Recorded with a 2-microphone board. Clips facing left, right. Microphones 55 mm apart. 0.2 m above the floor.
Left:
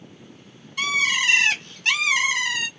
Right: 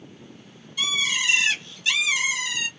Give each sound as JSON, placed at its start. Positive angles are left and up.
{"t": 0.8, "sound": "a bird", "side_deg": 60, "distance_m": 0.9}